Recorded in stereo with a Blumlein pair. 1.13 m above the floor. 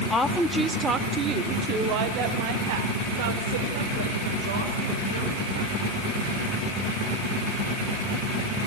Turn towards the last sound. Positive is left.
turn(degrees=-65)